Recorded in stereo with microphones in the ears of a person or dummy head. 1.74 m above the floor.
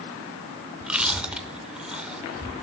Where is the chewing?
5° right (ahead or behind), 0.5 m.